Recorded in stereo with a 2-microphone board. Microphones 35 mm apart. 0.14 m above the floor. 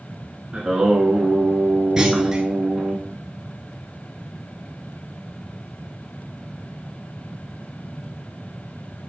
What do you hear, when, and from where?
0.5 s singing: 15° right (ahead or behind), 0.9 m
2.0 s a clunk: 20° right (ahead or behind), 0.5 m